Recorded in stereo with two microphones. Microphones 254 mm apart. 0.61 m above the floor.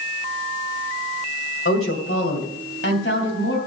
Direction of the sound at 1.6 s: 60° left (ahead or behind).